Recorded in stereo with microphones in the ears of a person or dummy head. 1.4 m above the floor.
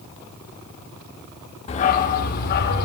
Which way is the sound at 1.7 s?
40° left (ahead or behind).